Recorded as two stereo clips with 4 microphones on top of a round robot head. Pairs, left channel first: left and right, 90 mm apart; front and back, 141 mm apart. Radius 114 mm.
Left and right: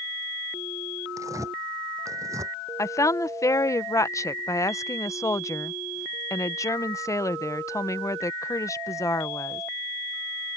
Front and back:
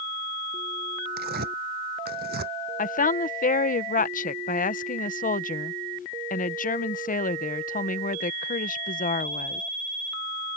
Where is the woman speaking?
30° left.